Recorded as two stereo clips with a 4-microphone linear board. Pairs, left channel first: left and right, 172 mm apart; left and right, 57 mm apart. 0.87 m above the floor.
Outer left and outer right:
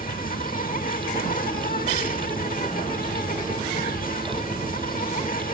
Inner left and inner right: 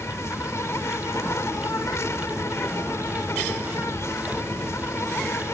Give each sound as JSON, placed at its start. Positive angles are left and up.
{"t": 0.0, "sound": "an insect", "side_deg": 60}